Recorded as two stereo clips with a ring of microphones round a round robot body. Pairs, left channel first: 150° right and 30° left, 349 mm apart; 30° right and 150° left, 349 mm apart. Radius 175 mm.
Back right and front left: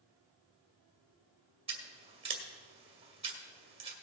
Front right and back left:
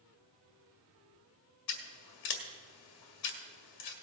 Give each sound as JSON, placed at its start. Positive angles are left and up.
{"t": 1.7, "sound": "scissors", "azimuth_deg": -40, "distance_m": 1.7}